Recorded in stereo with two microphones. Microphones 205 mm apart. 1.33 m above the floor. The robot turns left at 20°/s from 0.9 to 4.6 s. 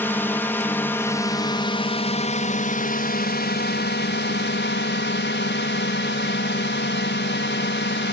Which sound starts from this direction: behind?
A drone, at 0.0 s.